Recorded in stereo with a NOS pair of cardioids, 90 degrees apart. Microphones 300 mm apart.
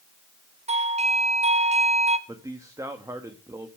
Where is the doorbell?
20° right, 1.6 m.